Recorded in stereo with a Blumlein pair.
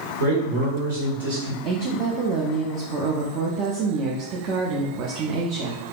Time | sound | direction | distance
0.2 | a man speaking | 55° right | 1.4 m
1.6 | a woman speaking | 40° right | 0.5 m